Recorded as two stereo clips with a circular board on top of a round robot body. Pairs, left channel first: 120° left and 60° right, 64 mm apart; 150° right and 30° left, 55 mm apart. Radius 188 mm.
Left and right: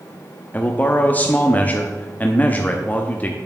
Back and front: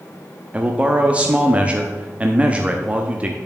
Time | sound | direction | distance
0.5 | a man speaking | 80° left | 1.0 m